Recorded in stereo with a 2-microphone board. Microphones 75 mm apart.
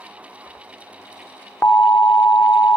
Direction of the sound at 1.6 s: 35° left (ahead or behind).